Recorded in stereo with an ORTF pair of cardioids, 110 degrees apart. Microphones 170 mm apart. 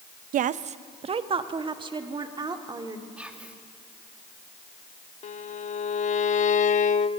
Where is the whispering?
10° right, 2.5 m.